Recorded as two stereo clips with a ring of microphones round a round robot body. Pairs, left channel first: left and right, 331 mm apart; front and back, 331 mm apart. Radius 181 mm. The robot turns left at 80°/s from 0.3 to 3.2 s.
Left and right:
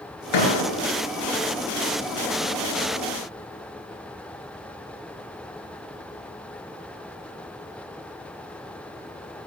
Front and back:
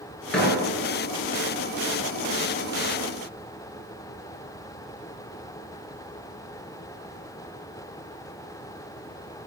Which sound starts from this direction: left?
A door slam, at 0.3 s.